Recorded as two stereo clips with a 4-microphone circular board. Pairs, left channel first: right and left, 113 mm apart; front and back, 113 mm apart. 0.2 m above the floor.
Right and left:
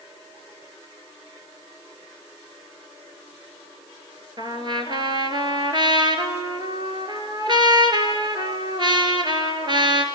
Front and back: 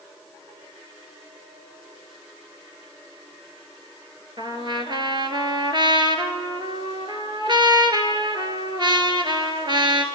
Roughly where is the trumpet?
Behind left.